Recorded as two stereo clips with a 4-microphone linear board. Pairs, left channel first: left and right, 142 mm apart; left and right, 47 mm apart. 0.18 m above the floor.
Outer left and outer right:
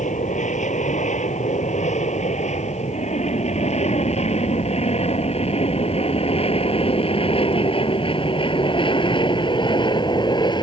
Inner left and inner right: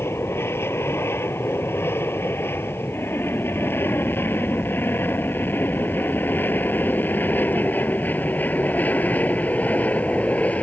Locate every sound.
0.0 s an aircraft: 60° left (ahead or behind); by 10.6 s 30° left (ahead or behind)